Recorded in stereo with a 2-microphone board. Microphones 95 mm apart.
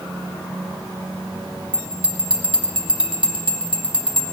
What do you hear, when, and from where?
1.7 s a bell: 60° right (ahead or behind), 0.9 m